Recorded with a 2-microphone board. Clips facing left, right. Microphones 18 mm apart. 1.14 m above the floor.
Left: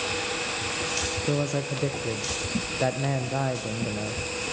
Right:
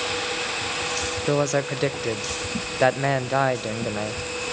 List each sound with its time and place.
1.3 s a man speaking: 45° right (ahead or behind), 0.5 m